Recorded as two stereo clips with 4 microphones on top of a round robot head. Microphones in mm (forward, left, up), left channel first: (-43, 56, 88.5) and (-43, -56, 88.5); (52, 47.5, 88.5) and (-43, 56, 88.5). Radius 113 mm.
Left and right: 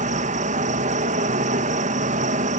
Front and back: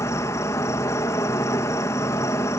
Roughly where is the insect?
Right.